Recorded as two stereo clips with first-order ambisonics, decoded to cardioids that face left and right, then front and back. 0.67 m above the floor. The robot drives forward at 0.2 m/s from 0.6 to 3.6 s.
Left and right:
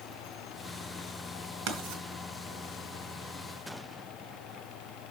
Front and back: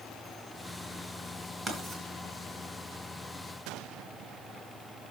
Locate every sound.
1.7 s writing: 115° right, 3 m